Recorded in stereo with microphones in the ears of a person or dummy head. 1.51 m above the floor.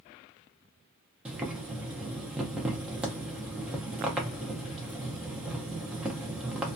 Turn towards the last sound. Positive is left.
turn(degrees=-15)  # may be behind; listen again after turning